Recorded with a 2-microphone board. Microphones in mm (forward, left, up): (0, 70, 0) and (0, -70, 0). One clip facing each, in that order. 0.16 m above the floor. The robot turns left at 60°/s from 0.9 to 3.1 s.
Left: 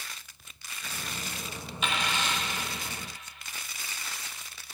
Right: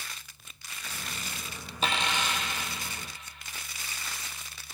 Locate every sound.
1.8 s a dropped coin: 140° right, 1.0 m; by 2.5 s straight behind, 1.0 m